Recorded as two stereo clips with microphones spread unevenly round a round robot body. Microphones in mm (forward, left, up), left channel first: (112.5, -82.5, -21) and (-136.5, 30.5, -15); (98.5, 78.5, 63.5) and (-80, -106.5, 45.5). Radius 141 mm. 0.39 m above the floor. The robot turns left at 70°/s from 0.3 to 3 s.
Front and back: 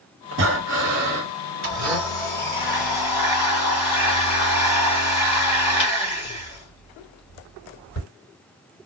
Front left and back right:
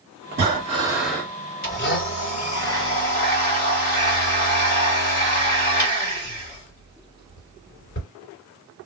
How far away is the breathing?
About 1.7 m.